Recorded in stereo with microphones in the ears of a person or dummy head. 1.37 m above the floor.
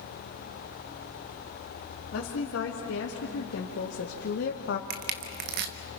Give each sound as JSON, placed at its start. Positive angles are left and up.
{"t": 2.1, "sound": "a woman speaking", "side_deg": 65, "distance_m": 3.0}
{"t": 4.9, "sound": "crushing", "side_deg": -50, "distance_m": 0.9}